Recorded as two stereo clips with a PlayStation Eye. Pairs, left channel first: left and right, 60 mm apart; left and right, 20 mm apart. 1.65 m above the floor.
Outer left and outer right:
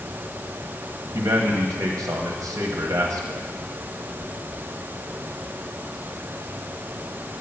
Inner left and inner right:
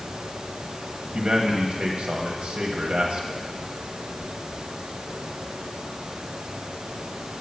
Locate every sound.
1.1 s a man speaking: 65° right (ahead or behind), 1.2 m